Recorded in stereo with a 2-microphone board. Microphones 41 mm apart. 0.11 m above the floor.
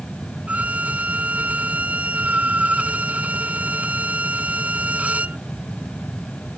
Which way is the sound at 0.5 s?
40° right (ahead or behind).